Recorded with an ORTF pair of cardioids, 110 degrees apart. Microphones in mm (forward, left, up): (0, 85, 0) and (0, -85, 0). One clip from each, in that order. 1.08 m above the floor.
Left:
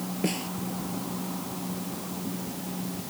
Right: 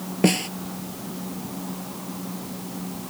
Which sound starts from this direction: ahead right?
A snare drum, at 0.2 s.